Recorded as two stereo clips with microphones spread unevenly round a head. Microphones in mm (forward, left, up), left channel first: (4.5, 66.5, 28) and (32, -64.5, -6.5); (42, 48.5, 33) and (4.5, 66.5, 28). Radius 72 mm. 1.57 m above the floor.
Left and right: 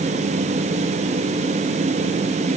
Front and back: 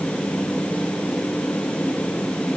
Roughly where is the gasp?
No gasp in this recording.